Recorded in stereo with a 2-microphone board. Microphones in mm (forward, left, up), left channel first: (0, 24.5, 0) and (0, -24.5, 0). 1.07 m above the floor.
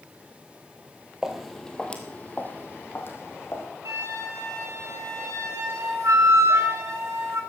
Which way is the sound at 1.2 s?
10° right (ahead or behind).